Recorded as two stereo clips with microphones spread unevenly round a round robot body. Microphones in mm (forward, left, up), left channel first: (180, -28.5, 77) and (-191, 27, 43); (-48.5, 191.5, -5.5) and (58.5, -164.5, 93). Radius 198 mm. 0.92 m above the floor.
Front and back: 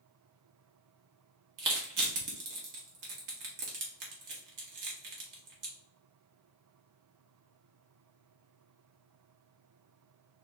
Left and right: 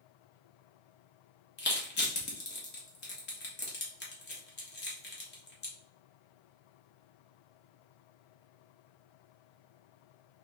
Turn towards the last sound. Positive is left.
turn(degrees=155)